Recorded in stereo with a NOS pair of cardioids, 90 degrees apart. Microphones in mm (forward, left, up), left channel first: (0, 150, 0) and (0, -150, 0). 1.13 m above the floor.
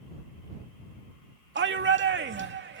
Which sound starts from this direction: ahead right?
A shout, at 1.6 s.